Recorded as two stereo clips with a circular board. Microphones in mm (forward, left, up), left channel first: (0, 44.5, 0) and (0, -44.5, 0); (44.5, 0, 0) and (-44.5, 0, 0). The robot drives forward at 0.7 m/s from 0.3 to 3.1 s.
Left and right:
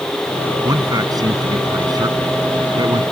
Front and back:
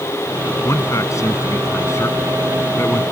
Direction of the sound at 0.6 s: 50° right.